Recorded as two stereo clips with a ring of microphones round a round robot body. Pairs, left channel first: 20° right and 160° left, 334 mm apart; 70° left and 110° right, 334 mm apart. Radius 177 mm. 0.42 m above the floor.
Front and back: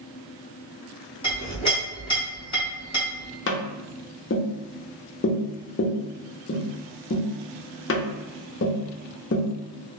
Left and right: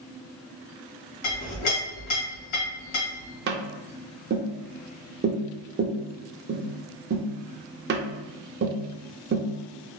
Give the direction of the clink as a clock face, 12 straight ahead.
10 o'clock.